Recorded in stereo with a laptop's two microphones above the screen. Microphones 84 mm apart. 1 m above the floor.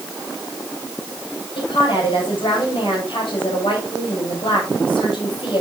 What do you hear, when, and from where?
1.6 s a woman speaking: 80° left, 5 m